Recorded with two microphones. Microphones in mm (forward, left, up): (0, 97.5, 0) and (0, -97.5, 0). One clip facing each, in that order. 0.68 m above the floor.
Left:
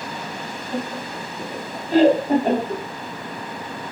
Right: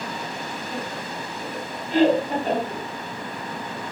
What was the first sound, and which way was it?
Laughter, 40° left (ahead or behind).